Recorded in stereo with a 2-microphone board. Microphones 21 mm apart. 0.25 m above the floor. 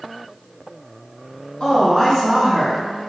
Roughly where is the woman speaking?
Left.